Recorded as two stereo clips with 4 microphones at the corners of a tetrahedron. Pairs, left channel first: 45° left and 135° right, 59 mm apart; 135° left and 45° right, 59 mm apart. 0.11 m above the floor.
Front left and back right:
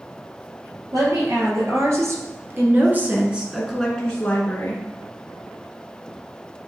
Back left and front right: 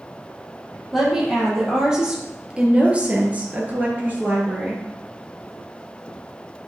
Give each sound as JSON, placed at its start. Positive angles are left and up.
{"t": 0.9, "sound": "a woman speaking", "azimuth_deg": -130, "distance_m": 4.0}